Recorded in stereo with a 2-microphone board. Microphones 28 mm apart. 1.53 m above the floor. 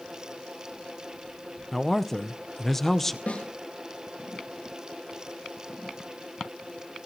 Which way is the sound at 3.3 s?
65° left (ahead or behind).